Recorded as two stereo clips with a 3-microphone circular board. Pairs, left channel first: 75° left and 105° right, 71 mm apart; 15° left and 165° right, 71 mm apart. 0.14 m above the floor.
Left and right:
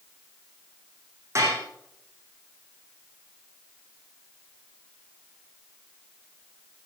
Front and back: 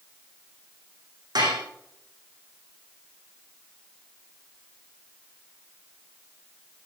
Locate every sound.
1.4 s dishes clattering: 150° right, 6.5 m